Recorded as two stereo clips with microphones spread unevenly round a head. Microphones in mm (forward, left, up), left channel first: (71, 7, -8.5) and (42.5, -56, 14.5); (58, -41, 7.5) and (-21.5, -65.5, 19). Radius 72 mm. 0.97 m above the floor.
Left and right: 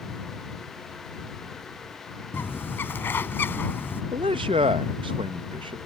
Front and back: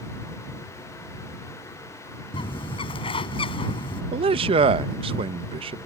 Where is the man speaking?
155° right.